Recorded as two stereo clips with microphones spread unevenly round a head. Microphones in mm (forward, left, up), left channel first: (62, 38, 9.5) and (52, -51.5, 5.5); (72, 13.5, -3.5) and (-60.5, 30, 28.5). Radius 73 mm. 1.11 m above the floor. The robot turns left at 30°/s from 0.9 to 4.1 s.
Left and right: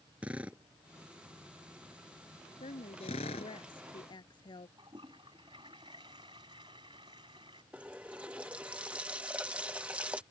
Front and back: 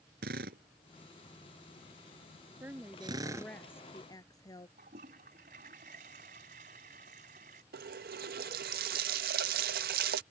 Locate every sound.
0.2 s a drill: straight behind; by 3.5 s 105° left
2.6 s a woman speaking: 100° left; by 4.7 s 55° left
4.8 s a toilet flushing: 155° right
7.7 s a running tap: 175° right